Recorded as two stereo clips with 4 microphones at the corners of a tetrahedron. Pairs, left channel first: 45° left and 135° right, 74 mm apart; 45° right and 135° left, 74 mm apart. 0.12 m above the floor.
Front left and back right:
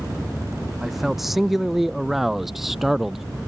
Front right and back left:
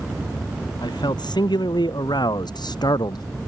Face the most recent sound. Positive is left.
turn(degrees=-50)